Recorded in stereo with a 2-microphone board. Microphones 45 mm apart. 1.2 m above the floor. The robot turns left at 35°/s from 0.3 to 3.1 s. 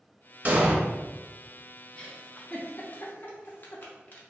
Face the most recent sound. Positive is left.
turn(degrees=40)  # may be behind; listen again after turning